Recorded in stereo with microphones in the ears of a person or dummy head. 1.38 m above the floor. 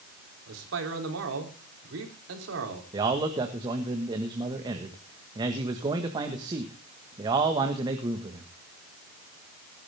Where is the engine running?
I don't hear an engine running.